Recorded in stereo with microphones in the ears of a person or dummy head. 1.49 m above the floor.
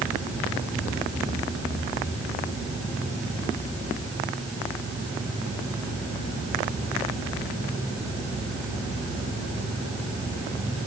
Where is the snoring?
I don't hear snoring.